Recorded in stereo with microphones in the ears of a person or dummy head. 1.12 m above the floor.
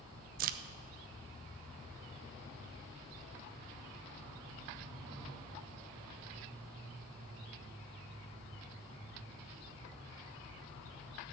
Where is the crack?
45° right (ahead or behind), 0.7 m.